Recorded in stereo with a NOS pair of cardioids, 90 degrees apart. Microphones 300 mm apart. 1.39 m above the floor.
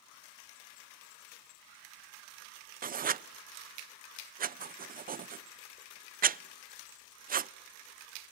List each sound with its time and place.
2.8 s writing: 30° right, 0.5 m